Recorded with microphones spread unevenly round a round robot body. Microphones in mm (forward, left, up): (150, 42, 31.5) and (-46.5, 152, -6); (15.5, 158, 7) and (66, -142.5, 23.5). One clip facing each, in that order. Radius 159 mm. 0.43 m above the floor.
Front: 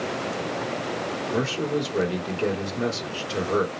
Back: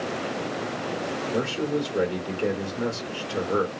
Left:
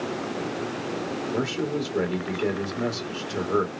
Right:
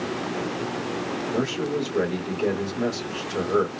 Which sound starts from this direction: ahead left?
A man speaking, at 1.3 s.